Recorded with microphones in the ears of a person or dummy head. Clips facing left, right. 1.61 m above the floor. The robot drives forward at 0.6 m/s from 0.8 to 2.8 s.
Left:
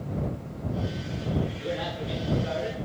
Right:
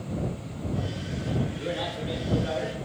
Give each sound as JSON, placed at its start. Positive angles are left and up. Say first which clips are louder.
{"t": 1.6, "sound": "a man speaking", "louder": "even", "side_deg": -45, "distance_m": 1.3}